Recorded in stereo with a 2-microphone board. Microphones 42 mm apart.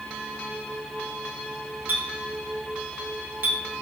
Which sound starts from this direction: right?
A clink, at 1.9 s.